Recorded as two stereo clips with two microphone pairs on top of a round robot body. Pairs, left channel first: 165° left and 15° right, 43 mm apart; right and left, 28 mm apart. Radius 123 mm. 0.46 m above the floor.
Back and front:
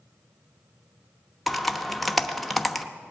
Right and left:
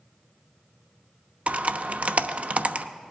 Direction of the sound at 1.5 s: 75° left.